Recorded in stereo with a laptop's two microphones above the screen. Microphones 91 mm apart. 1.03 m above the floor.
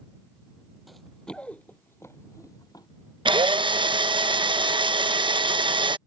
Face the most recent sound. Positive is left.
turn(degrees=-70)  # may be behind; listen again after turning